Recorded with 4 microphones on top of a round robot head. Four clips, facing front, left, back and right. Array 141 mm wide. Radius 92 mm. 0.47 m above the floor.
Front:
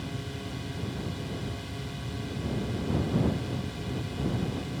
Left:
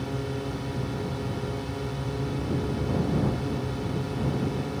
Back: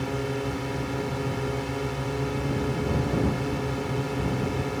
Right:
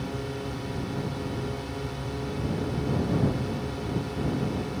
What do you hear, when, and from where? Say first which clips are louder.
0.0 s a drone: left 1 dB, back 9 dB; 175° left